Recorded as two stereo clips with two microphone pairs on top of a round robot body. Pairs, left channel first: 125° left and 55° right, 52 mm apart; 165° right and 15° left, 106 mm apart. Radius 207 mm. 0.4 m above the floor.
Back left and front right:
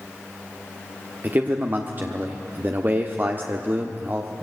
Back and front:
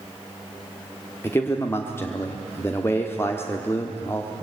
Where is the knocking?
I don't hear knocking.